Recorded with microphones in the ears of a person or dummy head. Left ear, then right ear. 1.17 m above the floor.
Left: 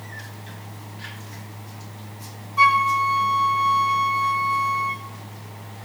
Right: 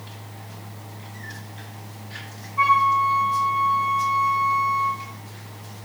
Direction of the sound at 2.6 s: 75° left (ahead or behind).